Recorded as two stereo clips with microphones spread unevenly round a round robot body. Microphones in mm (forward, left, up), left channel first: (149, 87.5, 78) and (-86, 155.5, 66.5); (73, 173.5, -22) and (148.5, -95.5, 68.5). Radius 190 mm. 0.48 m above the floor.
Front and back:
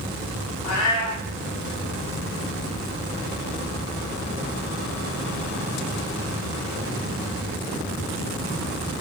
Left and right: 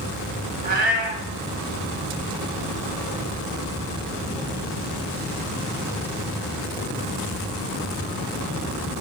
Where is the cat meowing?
35° right, 1.5 m.